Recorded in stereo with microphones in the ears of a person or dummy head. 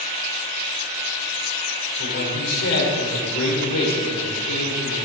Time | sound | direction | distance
2.0 | a man speaking | 80° left | 4.5 m